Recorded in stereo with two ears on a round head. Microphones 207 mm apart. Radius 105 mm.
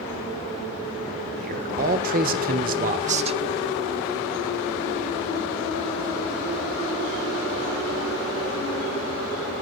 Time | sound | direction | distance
1.4 | a man speaking | 40° right (ahead or behind) | 1.4 m